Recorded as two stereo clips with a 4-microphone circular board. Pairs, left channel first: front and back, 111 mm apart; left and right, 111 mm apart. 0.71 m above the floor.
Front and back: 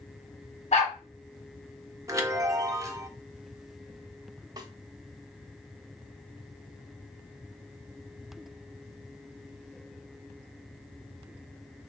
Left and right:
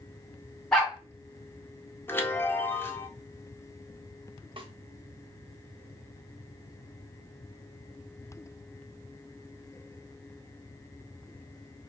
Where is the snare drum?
125° right, 0.7 m.